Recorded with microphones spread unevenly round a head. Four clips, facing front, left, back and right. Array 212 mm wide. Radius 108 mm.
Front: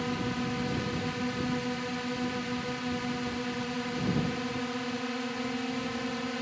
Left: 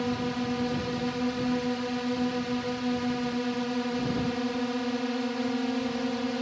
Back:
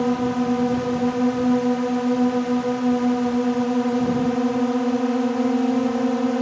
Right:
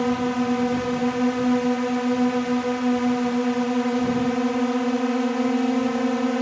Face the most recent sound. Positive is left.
turn(degrees=-155)